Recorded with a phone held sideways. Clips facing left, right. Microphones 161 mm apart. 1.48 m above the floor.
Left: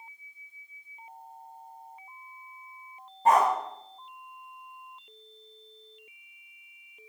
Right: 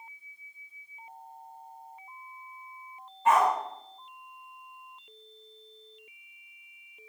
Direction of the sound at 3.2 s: 35° left (ahead or behind).